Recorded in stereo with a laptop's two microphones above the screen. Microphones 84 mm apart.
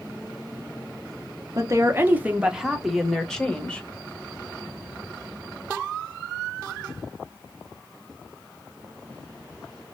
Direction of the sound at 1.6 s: 40° right (ahead or behind).